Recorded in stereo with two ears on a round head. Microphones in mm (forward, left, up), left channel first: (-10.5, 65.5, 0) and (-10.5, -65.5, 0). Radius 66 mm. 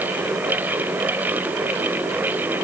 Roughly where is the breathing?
I don't hear breathing.